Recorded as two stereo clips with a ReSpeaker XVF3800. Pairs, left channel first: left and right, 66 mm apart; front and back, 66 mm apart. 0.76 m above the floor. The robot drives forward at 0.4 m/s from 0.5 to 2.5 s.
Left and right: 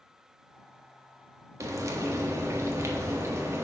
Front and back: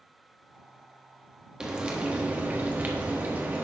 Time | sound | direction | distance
1.6 | frying | 105° right | 1.3 m